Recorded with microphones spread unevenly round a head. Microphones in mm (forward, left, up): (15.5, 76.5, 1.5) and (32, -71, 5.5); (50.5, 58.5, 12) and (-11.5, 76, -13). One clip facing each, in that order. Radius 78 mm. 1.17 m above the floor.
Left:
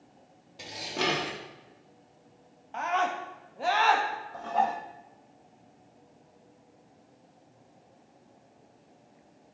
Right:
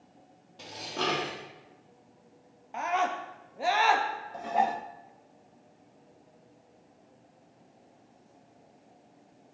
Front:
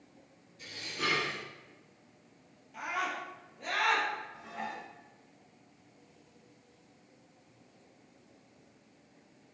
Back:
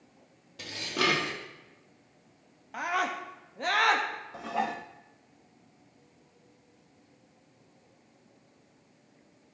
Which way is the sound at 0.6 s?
175° left.